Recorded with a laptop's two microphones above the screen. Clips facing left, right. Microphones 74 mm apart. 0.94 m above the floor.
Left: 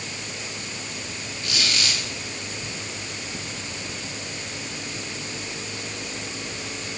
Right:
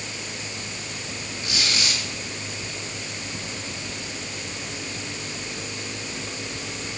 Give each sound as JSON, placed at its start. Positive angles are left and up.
{"t": 1.4, "sound": "a squeak", "side_deg": -25, "distance_m": 3.0}